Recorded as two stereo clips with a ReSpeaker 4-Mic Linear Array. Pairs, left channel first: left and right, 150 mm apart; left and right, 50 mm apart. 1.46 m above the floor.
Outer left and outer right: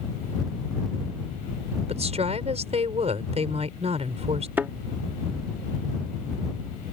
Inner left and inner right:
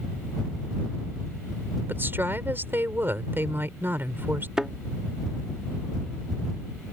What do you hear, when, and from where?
1.9 s a woman speaking: 45° right (ahead or behind)
4.6 s a thud: 15° right (ahead or behind)